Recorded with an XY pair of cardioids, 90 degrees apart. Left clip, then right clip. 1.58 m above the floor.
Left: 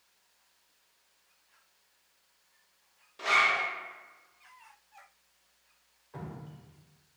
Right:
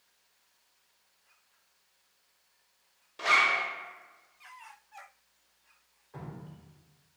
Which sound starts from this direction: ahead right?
A zipper, at 3.2 s.